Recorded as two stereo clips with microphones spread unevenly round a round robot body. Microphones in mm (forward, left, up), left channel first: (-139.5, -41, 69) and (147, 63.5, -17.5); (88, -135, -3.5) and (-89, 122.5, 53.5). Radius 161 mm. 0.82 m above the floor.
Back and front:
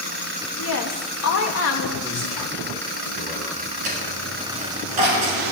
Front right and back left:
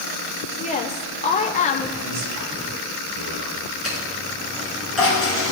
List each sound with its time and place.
0.6 s a woman speaking: 110° right, 1.4 m
2.0 s a man speaking: 110° left, 3 m
3.8 s a dropped coin: 35° left, 5 m